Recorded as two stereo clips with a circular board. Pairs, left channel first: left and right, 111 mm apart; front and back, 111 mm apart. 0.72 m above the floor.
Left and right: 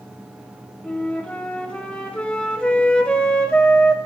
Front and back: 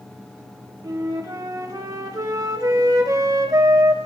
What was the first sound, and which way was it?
A flute, 160° left.